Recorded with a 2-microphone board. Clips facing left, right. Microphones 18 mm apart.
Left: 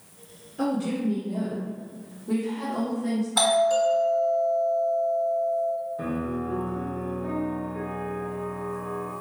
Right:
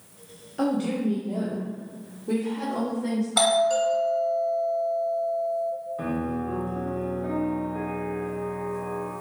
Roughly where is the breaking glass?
No breaking glass in this recording.